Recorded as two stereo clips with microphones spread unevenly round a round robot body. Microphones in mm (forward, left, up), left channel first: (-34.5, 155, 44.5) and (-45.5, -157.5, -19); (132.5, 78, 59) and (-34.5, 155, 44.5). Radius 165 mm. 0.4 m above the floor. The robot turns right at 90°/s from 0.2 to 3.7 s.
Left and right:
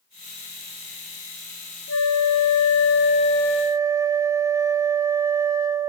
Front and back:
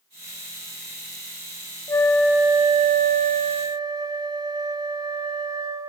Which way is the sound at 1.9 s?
45° left.